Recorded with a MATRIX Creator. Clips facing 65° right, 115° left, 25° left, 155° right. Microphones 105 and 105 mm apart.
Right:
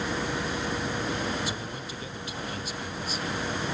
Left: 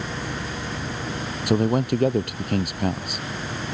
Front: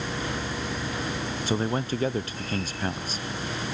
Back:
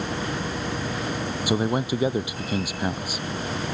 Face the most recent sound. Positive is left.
turn(degrees=125)